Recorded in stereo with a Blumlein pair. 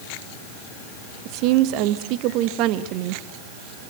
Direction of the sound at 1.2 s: 40° right.